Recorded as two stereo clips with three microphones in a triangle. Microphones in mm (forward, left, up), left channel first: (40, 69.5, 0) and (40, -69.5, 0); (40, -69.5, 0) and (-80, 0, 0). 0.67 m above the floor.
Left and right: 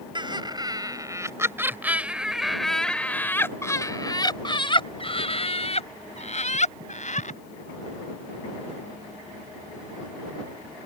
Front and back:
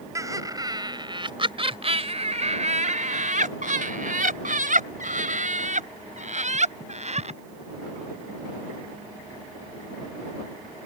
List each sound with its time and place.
0.1 s laughter: 145° right; by 7.4 s 115° left